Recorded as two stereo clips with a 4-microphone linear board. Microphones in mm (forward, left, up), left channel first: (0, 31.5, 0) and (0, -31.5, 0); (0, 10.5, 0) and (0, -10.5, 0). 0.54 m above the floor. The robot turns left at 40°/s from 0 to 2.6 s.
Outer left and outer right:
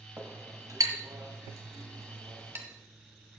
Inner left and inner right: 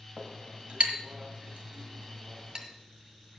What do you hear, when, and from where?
0.2 s a clink: 40° right (ahead or behind), 1.6 m; by 2.7 s 45° right (ahead or behind), 1.6 m